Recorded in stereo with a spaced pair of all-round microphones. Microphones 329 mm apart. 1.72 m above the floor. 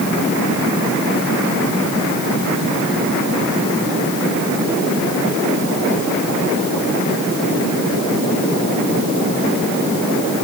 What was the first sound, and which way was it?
Only background noise.